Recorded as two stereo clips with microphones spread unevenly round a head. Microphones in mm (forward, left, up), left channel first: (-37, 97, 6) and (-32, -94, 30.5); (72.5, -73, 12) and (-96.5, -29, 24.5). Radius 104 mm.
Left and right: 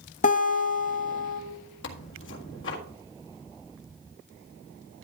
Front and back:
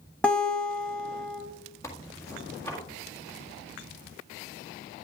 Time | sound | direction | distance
0.2 | a guitar | 75° left | 1.0 m
1.8 | tearing paper | 60° left | 1.8 m